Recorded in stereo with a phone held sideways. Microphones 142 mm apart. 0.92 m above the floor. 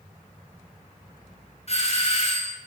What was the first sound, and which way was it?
A doorbell, 45° left (ahead or behind).